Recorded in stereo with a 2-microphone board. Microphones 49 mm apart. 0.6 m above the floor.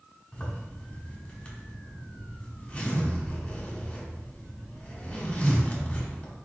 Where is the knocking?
No knocking in this recording.